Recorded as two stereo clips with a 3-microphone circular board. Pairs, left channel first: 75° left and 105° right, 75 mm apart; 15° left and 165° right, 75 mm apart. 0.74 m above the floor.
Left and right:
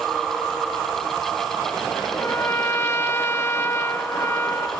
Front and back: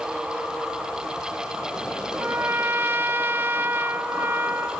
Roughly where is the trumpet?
Behind left.